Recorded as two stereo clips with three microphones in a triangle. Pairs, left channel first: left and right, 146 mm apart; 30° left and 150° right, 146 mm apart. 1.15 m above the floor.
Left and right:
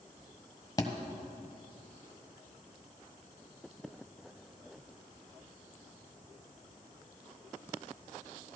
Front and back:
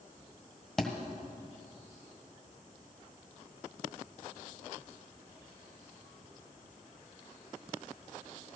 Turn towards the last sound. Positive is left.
turn(degrees=115)